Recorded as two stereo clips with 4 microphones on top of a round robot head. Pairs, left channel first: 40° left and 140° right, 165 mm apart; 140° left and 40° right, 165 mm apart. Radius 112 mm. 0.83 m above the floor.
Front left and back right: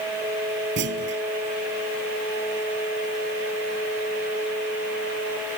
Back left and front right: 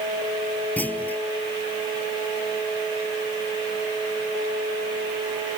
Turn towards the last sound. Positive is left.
turn(degrees=-140)